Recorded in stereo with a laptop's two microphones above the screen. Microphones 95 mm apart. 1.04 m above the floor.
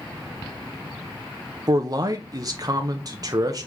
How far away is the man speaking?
About 0.7 m.